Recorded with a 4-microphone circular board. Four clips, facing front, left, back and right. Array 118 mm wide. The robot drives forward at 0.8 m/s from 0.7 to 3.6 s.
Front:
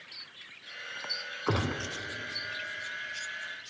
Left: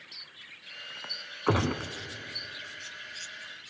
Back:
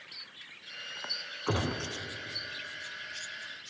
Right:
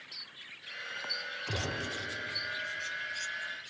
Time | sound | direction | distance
1.5 | a gunshot | 80° left | 1.5 m